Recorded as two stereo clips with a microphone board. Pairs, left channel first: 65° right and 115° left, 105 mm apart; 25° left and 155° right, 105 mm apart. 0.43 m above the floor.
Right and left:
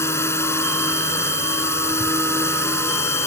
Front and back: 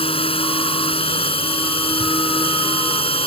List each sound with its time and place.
0.0 s a drone: 5° right